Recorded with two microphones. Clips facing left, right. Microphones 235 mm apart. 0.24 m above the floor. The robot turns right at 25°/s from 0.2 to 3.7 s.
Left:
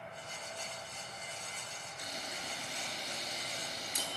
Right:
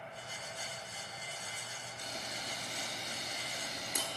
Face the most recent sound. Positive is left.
turn(degrees=-65)  # may be behind; listen again after turning